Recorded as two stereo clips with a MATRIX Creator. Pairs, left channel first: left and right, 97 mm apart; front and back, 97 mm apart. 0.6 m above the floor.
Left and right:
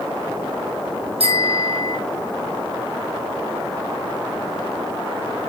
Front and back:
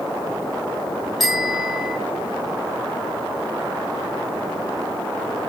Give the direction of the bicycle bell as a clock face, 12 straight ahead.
3 o'clock.